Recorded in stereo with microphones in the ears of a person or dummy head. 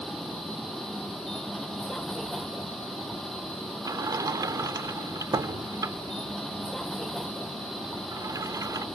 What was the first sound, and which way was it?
A vehicle, 10° left (ahead or behind).